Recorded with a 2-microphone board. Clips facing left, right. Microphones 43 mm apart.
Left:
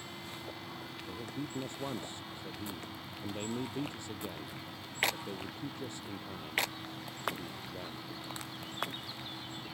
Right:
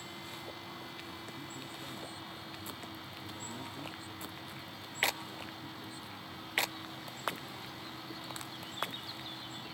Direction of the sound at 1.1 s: 75° left (ahead or behind).